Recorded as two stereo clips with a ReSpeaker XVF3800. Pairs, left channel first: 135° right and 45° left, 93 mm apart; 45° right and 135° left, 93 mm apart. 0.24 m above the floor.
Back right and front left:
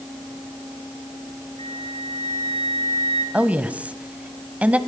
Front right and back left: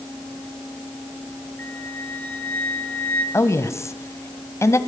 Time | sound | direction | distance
1.6 | a flute | 115° right | 3 m
3.3 | a woman speaking | 20° right | 1.6 m